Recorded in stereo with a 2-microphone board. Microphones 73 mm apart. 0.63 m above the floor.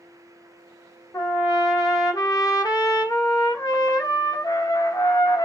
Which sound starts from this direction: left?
A trumpet, at 1.1 s.